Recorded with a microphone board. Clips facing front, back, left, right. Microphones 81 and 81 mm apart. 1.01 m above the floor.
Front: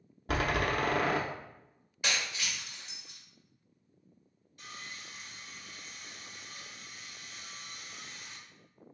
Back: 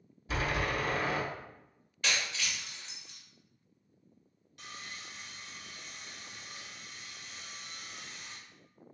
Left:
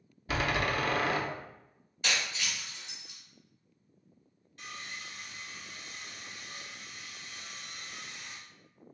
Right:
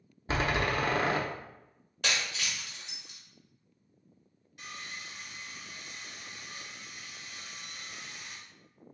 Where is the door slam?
30° right, 0.6 m.